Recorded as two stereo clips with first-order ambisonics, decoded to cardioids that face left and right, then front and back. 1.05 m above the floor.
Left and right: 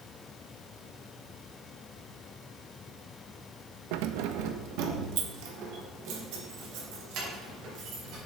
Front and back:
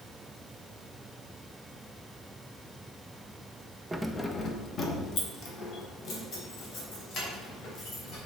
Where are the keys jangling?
100° right, 0.5 m; by 8.2 s 55° right, 4.5 m.